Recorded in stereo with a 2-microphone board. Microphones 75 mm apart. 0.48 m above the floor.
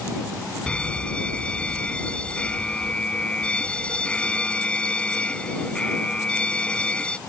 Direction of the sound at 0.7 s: 15° left (ahead or behind).